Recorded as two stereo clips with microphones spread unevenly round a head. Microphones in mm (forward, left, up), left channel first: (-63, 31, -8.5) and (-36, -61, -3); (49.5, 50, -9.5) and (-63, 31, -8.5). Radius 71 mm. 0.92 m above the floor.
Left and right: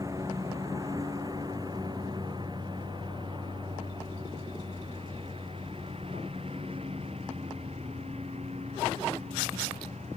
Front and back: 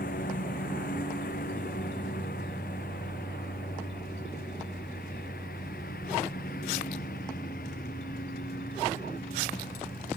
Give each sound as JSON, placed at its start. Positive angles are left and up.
{"t": 0.0, "sound": "a lawn mower", "azimuth_deg": 0}